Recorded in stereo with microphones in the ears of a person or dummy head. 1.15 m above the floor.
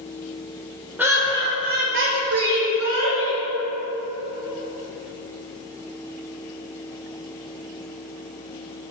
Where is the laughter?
5° right (ahead or behind), 0.9 m; by 3.4 s 55° right (ahead or behind), 1.4 m.